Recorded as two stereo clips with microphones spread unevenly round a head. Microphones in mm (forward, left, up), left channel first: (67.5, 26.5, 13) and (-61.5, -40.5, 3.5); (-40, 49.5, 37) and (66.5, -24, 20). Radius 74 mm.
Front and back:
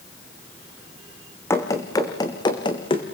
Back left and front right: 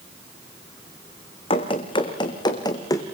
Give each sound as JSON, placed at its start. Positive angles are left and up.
{"t": 1.5, "sound": "running footsteps", "azimuth_deg": 100, "distance_m": 3.5}